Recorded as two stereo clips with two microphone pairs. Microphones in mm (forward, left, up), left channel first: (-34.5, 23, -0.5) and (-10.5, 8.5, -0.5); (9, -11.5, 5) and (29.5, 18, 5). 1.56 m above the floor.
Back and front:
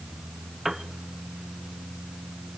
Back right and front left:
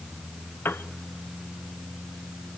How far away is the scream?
No scream in this recording.